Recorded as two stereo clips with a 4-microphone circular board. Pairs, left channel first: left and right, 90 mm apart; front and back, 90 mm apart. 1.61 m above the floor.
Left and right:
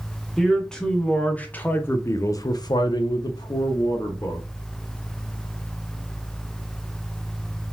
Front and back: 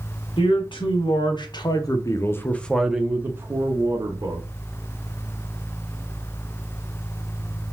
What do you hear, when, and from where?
0.4 s a man speaking: 5° left, 1.3 m; by 4.5 s 140° left, 1.1 m